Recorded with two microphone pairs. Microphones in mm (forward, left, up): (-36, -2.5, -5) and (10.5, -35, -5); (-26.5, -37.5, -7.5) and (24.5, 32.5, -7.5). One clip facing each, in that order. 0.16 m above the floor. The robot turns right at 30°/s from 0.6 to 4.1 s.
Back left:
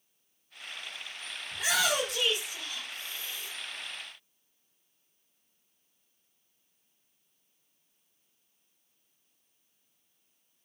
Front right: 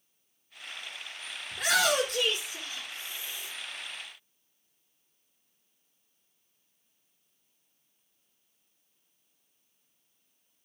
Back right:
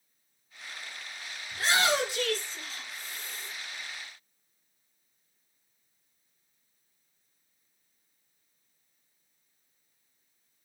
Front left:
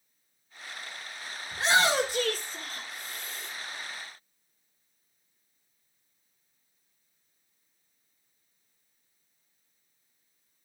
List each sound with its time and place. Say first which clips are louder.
1.5 s a shout: front right 3 dB, front left 2 dB; 10° right, 6.5 m; by 3.5 s 50° left, 6.5 m